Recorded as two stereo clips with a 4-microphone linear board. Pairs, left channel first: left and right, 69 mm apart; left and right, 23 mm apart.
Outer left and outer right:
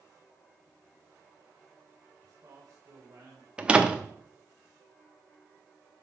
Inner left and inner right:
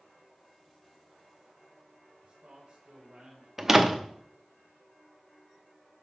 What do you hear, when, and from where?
2.2 s a man speaking: 45° right (ahead or behind), 3 m; by 3.5 s 65° right (ahead or behind), 3.5 m
3.6 s a door slam: 15° right (ahead or behind), 0.9 m